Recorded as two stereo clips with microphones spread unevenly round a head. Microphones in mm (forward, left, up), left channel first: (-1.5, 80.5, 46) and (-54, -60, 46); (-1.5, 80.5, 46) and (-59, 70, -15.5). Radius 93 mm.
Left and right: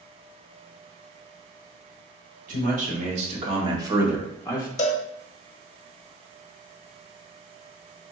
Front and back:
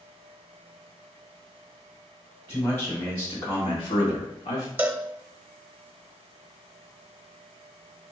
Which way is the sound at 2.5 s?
80° right.